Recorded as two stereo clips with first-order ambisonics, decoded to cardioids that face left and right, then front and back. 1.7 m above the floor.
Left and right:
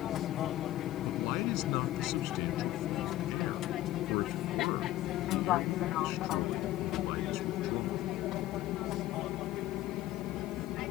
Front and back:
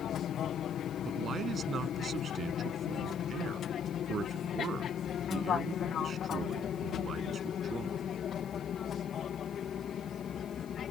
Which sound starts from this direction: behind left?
A man speaking, at 1.1 s.